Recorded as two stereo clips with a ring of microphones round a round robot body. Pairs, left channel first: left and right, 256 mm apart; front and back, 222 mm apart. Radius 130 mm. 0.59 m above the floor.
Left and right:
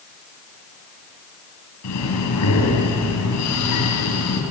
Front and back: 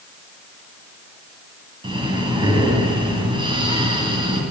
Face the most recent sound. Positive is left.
turn(degrees=110)